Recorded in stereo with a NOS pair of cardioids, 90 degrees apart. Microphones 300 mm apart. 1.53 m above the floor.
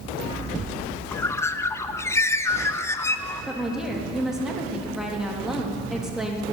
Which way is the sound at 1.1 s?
10° left.